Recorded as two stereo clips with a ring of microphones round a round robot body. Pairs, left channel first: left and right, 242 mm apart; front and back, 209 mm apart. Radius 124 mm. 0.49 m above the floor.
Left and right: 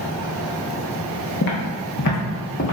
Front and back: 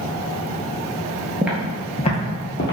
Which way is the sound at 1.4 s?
100° left.